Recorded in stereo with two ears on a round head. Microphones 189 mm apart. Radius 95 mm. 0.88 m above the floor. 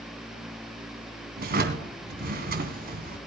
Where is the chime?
No chime in this recording.